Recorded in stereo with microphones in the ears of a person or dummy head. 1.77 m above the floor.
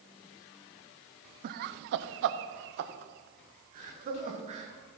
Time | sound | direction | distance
1.4 | laughter | 45° right (ahead or behind) | 0.7 m